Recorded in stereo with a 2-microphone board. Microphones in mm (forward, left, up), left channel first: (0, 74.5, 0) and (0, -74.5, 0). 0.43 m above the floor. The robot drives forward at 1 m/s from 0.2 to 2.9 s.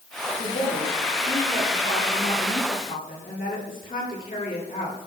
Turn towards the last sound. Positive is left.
turn(degrees=75)  # may be behind; listen again after turning